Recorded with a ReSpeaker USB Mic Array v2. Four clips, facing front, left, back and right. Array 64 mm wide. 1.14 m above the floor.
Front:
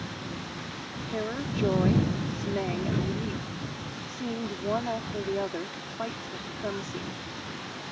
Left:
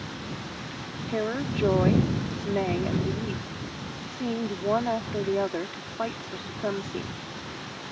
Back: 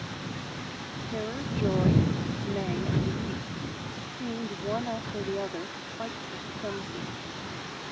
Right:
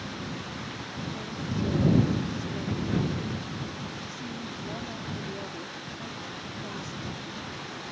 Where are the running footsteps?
No running footsteps in this recording.